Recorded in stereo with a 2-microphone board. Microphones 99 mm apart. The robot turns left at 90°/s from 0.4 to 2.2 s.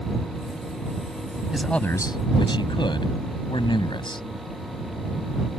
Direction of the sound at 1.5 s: 170° right.